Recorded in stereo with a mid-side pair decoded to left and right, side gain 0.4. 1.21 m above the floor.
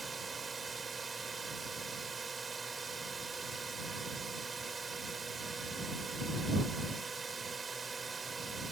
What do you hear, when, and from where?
0.0 s a drone: 35° right